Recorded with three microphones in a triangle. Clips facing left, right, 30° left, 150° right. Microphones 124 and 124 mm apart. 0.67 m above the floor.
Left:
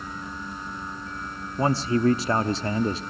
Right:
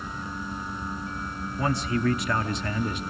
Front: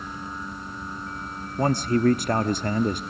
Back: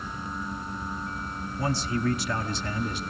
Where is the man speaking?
45° left, 0.9 m.